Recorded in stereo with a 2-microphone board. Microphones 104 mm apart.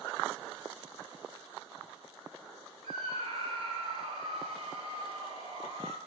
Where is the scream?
80° right, 6.5 m.